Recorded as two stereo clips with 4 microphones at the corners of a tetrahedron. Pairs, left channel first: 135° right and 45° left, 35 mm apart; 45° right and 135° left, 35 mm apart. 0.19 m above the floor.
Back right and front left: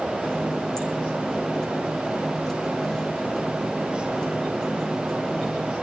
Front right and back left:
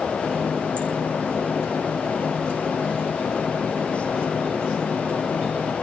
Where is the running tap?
150° left, 6.5 m.